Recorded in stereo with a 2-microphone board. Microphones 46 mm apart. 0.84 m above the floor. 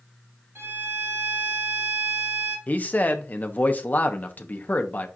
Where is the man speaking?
35° left (ahead or behind), 0.9 m.